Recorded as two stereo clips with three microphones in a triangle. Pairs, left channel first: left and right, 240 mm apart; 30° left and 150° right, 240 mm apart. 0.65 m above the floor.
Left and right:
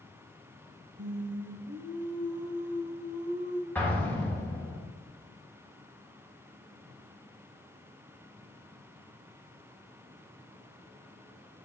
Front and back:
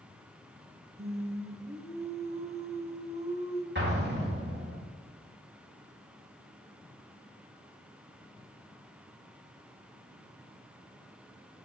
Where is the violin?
I don't hear a violin.